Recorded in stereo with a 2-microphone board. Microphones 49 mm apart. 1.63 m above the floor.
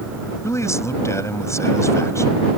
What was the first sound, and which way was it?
A man speaking, 80° left.